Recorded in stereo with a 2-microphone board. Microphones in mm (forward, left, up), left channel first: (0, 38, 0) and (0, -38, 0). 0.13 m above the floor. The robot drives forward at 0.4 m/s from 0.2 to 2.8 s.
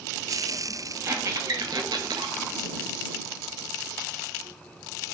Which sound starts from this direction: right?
A squeak, at 1.0 s.